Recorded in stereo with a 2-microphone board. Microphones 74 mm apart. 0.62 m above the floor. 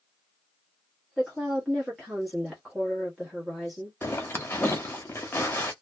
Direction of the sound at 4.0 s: 30° left (ahead or behind).